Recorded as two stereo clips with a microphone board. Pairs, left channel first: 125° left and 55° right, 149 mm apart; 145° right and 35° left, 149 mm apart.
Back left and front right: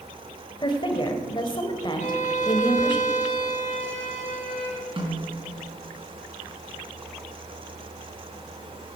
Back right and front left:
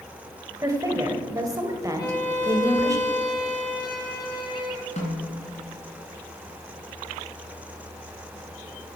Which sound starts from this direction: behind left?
A violin, at 2.0 s.